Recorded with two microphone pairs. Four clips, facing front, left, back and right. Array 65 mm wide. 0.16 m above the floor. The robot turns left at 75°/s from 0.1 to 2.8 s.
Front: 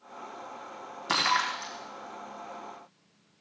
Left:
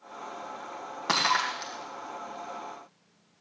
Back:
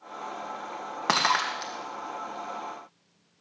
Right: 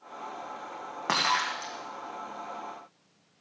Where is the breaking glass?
170° right, 4.5 m; by 3.4 s 60° left, 4.5 m.